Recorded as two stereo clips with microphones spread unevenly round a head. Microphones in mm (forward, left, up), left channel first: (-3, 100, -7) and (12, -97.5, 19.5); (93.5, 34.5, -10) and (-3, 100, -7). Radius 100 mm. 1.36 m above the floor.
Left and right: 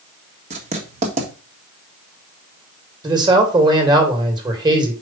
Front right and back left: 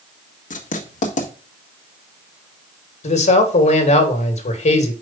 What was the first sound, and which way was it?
Writing, 30° right.